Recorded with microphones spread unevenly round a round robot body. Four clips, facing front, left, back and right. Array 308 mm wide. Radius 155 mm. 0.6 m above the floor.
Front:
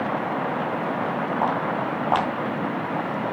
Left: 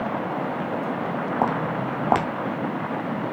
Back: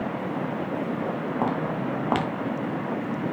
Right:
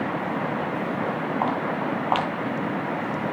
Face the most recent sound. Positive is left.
turn(degrees=115)